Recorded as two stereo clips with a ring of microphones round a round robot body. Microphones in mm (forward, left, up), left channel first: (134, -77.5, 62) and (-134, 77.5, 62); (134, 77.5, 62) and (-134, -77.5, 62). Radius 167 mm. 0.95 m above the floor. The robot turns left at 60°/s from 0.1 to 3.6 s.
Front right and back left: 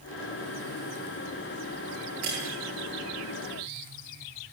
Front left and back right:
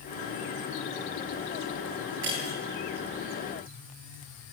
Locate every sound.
2.2 s breaking glass: 155° left, 9.5 m; by 2.5 s 135° left, 9.5 m